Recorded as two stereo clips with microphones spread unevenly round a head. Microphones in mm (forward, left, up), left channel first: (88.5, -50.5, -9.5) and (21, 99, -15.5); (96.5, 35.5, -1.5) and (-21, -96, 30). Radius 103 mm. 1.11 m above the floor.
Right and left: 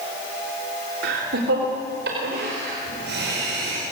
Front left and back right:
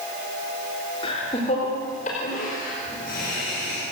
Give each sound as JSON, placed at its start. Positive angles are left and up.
{"t": 1.0, "sound": "laughter", "azimuth_deg": 115, "distance_m": 3.0}